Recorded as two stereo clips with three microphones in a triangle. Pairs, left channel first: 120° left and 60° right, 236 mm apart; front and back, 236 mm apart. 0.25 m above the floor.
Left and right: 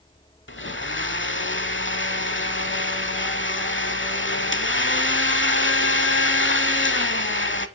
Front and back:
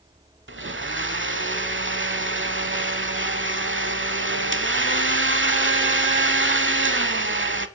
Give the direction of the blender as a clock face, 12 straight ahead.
7 o'clock.